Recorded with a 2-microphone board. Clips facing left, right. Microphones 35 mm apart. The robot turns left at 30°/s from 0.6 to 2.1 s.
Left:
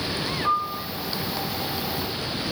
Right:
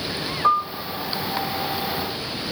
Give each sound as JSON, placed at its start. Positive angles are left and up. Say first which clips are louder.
{"t": 0.4, "sound": "a piano", "louder": "right 5 dB", "side_deg": -55, "distance_m": 7.5}